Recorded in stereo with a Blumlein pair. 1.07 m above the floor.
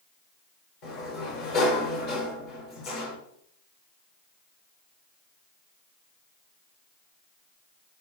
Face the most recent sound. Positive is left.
turn(degrees=50)